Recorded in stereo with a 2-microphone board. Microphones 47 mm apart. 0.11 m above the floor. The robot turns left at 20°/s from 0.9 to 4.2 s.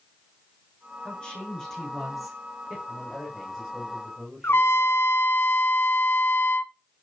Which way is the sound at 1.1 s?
20° left.